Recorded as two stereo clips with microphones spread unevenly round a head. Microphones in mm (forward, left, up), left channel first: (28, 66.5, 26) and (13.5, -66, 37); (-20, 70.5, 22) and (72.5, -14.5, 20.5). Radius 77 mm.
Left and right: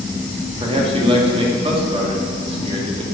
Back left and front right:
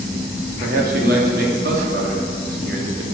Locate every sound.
0.6 s a man speaking: 45° right, 3 m